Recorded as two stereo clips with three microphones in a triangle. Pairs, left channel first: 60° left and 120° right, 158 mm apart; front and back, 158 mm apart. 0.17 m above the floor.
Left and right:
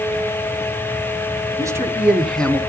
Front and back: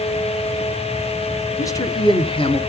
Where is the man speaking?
60° right, 1.3 m; by 2.6 s 15° right, 1.3 m.